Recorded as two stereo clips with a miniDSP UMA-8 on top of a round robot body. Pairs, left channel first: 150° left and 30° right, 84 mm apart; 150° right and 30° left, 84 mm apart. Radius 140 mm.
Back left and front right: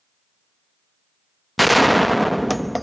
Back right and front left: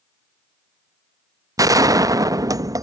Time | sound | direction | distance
1.6 | a gunshot | 60° left | ?